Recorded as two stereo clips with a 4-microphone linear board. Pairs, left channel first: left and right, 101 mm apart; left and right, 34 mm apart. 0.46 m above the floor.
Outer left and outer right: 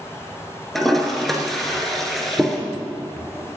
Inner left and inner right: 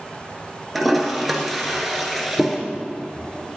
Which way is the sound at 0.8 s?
Centre (ahead or behind).